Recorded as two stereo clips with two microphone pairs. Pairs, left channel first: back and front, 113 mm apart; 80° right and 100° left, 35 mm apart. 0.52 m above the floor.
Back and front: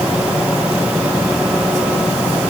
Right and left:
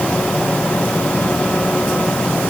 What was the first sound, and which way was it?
Only background noise.